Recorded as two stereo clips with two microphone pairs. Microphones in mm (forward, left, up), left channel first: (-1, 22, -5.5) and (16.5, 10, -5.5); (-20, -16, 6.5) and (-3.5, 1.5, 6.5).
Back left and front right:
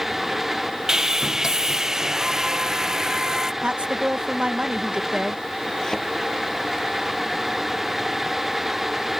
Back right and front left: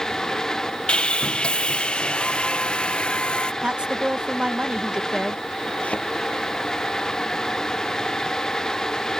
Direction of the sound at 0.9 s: 95° right.